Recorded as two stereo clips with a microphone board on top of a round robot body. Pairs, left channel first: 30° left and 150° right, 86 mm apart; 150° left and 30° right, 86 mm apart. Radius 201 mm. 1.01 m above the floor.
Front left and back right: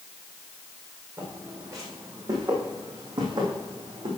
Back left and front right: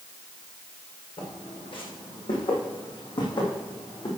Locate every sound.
1.2 s footsteps: 150° left, 4.5 m; by 4.1 s 175° right, 4.5 m